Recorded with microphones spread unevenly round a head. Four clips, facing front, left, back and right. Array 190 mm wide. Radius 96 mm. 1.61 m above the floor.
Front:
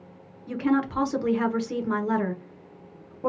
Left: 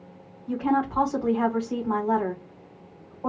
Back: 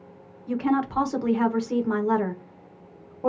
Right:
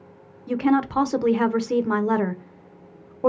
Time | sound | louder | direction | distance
0.5 | a woman speaking | right 4 dB, even | 75° right | 0.9 m